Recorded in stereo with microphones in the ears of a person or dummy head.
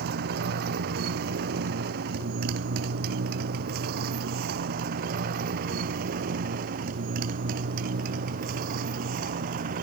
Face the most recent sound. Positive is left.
turn(degrees=-45)  # may be behind; listen again after turning